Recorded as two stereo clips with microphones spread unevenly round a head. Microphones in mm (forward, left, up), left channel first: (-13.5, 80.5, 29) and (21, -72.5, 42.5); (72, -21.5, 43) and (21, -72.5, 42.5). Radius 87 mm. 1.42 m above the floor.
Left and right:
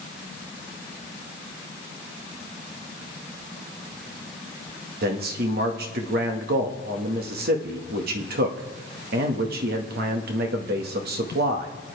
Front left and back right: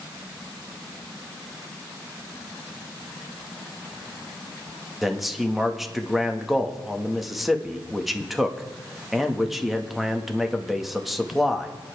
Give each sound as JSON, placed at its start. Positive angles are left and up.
{"t": 5.0, "sound": "a man speaking", "azimuth_deg": -45, "distance_m": 1.8}